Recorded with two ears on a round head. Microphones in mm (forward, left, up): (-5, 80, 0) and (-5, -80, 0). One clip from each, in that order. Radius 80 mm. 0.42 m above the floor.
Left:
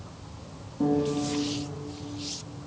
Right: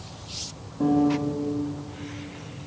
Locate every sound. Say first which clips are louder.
0.8 s a piano: right 4 dB; centre (ahead or behind), 1.4 m